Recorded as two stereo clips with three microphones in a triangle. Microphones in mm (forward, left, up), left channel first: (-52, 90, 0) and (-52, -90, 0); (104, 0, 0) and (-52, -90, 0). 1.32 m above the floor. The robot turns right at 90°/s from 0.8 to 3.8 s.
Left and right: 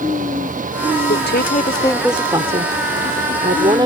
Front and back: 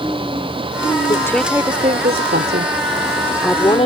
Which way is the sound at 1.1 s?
90° left.